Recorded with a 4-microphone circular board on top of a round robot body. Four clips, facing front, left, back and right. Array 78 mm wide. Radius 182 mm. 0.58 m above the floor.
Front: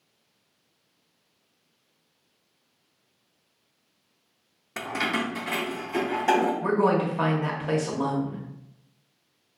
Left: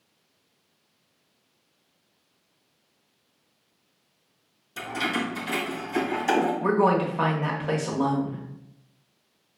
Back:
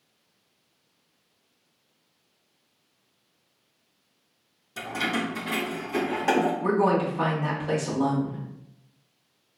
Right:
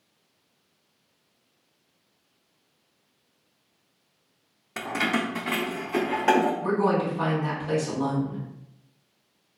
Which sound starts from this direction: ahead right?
Keys jangling, at 4.8 s.